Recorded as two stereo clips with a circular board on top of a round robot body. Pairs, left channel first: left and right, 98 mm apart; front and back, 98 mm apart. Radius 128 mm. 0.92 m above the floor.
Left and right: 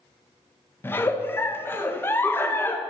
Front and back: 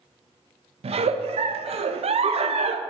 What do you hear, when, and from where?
0.8 s a giggle: 160° left, 0.7 m